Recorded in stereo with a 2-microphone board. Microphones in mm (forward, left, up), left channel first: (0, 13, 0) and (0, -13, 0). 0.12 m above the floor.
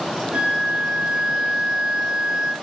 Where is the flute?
40° right (ahead or behind), 2 m.